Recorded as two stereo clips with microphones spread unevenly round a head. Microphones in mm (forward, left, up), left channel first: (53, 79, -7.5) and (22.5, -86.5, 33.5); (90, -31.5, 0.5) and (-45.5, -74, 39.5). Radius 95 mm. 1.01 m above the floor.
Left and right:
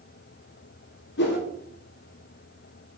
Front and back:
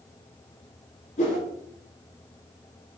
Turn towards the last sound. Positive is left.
turn(degrees=70)